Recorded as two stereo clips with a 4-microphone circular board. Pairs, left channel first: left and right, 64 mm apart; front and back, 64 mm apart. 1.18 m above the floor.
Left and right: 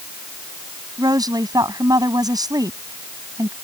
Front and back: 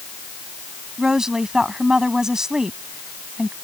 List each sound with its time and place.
1.0 s a woman speaking: 100° right